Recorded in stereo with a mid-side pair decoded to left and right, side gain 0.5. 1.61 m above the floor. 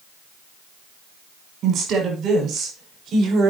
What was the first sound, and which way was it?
A woman speaking, 55° right.